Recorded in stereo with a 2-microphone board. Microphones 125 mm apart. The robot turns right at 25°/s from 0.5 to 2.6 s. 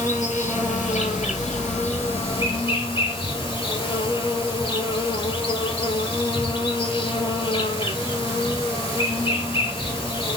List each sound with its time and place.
0.0 s an insect: 80° left, 2.5 m; by 10.4 s 130° left, 2.5 m